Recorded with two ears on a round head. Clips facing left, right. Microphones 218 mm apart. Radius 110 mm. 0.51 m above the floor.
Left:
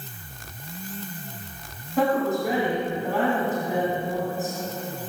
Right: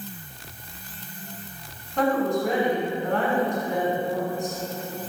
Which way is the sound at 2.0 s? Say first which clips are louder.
Even; 5° left (ahead or behind).